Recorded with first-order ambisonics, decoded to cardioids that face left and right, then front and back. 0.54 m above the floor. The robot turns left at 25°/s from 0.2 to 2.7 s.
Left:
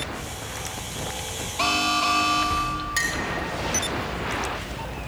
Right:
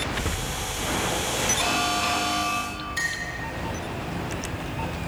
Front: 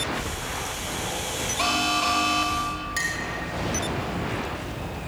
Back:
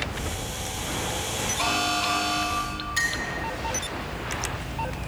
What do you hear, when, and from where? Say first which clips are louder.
1.6 s an alarm: left 7 dB, front 2 dB; 65° left, 0.8 m; by 2.9 s 35° left, 0.8 m
3.0 s a clink: left 1 dB, back 3 dB; 75° left, 1.3 m